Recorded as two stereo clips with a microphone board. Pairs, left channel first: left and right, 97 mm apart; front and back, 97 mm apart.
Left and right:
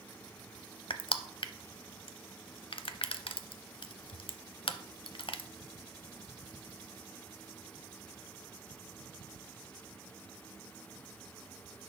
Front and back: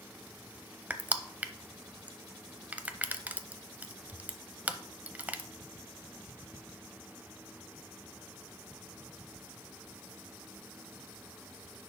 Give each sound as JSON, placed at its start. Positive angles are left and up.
{"t": 0.9, "sound": "crushing", "azimuth_deg": 110, "distance_m": 0.5}